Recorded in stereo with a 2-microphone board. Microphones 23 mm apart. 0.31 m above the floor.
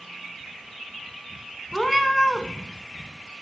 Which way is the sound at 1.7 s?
5° left (ahead or behind).